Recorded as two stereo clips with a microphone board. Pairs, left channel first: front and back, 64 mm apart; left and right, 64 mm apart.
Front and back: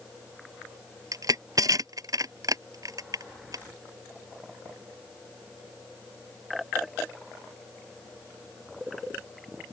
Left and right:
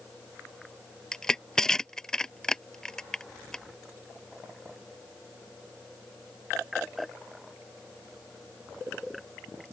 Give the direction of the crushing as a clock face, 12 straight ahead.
6 o'clock.